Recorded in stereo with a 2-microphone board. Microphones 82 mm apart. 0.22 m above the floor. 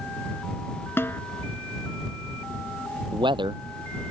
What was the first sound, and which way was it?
A snare drum, 25° left (ahead or behind).